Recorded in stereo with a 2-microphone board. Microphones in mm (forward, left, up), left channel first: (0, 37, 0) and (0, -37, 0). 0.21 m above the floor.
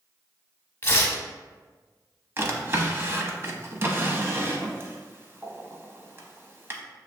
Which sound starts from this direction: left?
Tearing paper, at 0.8 s.